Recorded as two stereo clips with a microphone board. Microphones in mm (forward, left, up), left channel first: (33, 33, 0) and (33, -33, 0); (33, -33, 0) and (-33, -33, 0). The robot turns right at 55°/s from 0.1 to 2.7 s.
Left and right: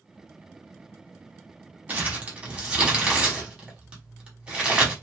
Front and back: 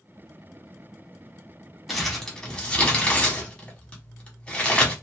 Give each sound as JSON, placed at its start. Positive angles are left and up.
{"t": 1.9, "sound": "crumpling", "azimuth_deg": -90, "distance_m": 1.1}